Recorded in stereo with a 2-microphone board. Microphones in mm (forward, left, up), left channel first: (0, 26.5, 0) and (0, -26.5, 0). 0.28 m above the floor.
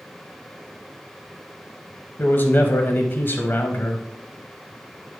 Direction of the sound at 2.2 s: 40° left (ahead or behind).